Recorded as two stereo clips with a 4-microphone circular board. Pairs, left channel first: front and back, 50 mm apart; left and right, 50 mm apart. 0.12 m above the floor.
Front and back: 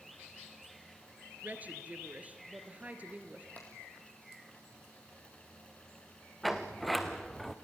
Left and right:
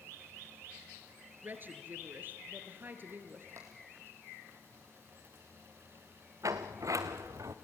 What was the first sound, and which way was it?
A woman speaking, 125° right.